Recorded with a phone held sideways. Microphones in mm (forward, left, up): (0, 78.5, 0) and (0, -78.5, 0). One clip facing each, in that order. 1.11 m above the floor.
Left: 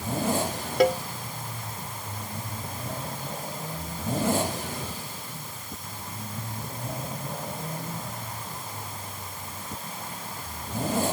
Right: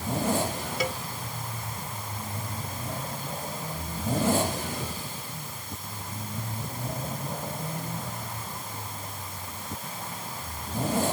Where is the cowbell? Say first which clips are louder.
Left 11 dB; 60° left (ahead or behind).